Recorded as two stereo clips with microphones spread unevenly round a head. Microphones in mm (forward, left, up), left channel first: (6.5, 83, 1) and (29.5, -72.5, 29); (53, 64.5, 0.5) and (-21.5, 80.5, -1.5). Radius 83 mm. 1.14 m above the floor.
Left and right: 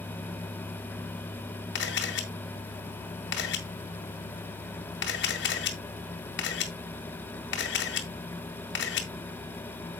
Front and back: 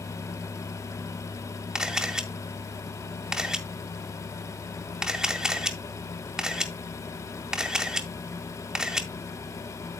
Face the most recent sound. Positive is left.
turn(degrees=85)